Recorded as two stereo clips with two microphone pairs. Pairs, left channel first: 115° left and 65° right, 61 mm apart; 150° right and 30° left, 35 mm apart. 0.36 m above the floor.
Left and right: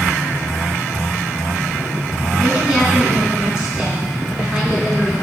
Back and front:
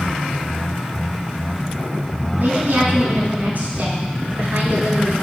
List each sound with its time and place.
2.4 s a woman speaking: 15° left, 3.5 m